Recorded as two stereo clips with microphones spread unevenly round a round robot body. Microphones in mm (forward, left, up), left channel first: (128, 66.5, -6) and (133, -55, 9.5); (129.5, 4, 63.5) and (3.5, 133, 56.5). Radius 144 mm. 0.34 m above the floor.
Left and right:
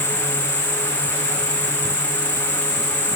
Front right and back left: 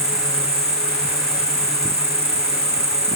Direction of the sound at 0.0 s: 80° left.